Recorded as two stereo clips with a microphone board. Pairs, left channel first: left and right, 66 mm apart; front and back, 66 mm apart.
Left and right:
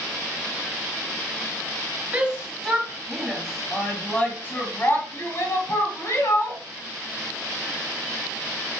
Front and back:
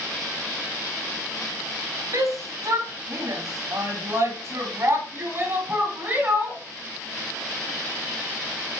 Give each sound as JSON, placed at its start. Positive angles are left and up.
{"t": 2.1, "sound": "a shout", "azimuth_deg": -160, "distance_m": 2.5}